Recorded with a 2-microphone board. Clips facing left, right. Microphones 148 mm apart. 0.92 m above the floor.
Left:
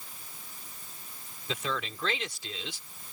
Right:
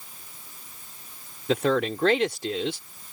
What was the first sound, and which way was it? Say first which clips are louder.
A man speaking: right 12 dB; 65° right (ahead or behind).